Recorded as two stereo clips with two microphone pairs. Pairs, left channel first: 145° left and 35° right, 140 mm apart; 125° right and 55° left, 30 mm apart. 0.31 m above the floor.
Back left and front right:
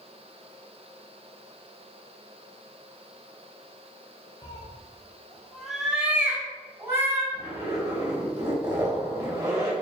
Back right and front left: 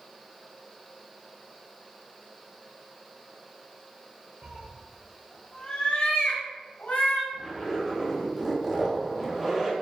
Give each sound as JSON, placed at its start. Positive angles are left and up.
{"t": 4.4, "sound": "a cat meowing", "azimuth_deg": 95, "distance_m": 0.7}
{"t": 7.3, "sound": "a zipper", "azimuth_deg": -35, "distance_m": 1.2}